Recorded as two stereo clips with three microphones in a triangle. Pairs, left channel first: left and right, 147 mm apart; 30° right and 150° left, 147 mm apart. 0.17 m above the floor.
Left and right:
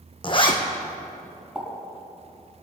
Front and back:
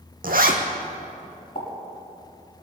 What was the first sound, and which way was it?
A zipper, 145° left.